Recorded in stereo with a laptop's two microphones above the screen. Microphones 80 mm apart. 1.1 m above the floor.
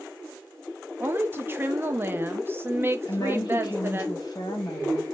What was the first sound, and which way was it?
A woman speaking, 25° right (ahead or behind).